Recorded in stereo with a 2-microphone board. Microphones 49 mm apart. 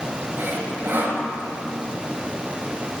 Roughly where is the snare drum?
No snare drum in this recording.